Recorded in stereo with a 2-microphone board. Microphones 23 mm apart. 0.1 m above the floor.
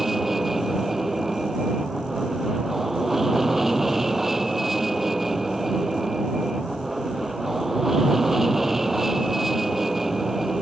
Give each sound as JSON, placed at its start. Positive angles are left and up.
{"t": 0.0, "sound": "an aircraft", "side_deg": -10}